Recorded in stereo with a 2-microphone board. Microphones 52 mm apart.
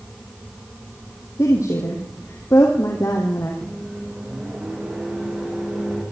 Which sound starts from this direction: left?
A woman speaking, at 1.4 s.